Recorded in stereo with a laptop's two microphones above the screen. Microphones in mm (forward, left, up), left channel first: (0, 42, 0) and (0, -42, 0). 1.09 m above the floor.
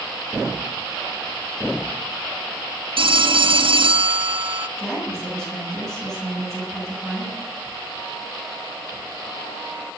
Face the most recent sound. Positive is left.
turn(degrees=5)  # may be behind; listen again after turning